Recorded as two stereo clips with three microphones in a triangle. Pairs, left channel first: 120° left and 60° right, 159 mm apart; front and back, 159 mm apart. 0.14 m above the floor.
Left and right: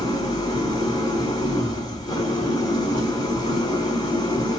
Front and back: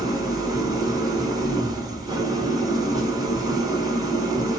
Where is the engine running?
150° left, 1.5 m.